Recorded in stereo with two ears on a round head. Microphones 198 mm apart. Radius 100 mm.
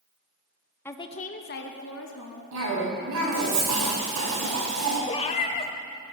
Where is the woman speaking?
10° left (ahead or behind), 0.8 m; by 2.4 s 60° left (ahead or behind), 2.0 m.